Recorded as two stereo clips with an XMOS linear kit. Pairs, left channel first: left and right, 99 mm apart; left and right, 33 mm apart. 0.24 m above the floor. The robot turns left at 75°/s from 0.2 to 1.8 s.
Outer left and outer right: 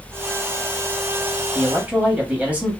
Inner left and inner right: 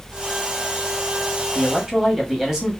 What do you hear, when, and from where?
1.6 s a man speaking: 5° right (ahead or behind), 1.1 m; by 2.7 s 15° right (ahead or behind), 1.1 m